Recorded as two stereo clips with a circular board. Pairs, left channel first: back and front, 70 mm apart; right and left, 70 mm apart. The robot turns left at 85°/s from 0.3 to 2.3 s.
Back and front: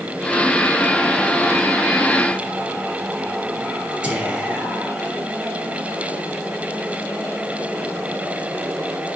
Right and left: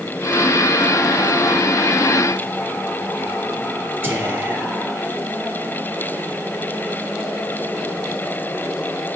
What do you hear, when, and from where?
4.0 s whispering: 60° left, 1.2 m